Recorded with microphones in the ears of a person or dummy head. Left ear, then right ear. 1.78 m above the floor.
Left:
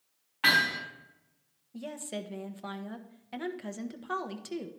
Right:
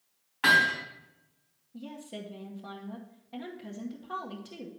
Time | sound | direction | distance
0.4 | hammering | 5° right (ahead or behind) | 4 m
1.7 | a woman speaking | 45° left (ahead or behind) | 1.0 m